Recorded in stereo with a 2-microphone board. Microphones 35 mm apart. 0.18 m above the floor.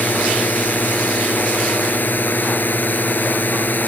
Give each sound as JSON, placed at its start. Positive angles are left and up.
{"t": 0.0, "sound": "a drone", "side_deg": 65}